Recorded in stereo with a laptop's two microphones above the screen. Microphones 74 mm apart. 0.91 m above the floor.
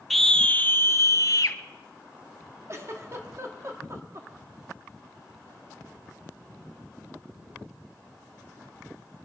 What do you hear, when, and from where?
0.1 s a scream: 5° left (ahead or behind), 0.7 m; by 1.6 s 60° left (ahead or behind), 0.9 m
2.7 s a giggle: 40° right (ahead or behind), 1.6 m